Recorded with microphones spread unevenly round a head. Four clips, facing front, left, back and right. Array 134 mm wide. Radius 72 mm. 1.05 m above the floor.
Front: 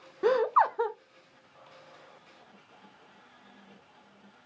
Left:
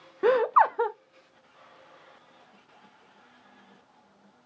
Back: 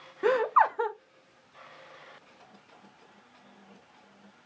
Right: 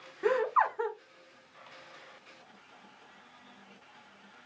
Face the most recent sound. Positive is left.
turn(degrees=100)